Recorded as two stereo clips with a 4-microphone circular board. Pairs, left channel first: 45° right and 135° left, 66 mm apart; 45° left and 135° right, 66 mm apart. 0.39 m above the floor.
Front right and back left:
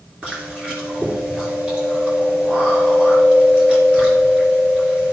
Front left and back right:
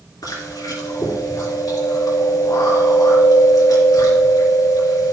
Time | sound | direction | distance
0.2 | chewing | 60° left | 3.5 m